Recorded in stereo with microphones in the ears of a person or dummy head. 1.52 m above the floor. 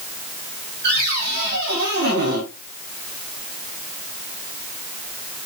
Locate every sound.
0.8 s a cupboard door: 60° right (ahead or behind), 4 m